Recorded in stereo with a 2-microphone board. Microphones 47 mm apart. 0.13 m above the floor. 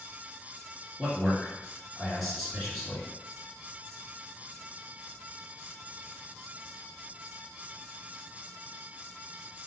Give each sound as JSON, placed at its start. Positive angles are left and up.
{"t": 1.0, "sound": "a man speaking", "side_deg": 0, "distance_m": 1.7}